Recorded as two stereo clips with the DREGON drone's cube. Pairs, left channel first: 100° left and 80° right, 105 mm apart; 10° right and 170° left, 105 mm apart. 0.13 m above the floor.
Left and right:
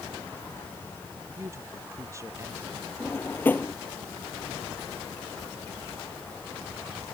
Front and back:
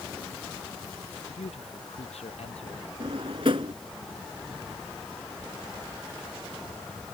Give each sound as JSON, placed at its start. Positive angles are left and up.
{"t": 1.4, "sound": "a man speaking", "azimuth_deg": -15}
{"t": 3.0, "sound": "a drawer", "azimuth_deg": 165}